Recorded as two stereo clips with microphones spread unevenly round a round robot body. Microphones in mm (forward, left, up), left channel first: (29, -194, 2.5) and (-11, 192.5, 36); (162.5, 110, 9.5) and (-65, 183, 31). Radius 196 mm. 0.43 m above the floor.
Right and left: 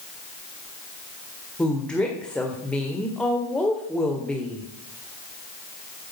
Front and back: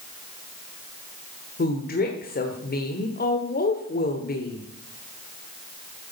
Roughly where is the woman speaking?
Ahead.